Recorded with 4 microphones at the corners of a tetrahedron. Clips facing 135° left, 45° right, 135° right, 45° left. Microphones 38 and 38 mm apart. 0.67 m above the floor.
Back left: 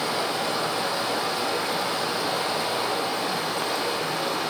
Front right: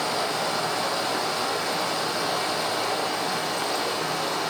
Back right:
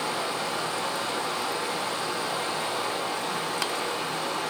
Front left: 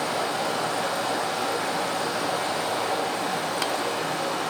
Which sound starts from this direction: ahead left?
Running water, at 0.0 s.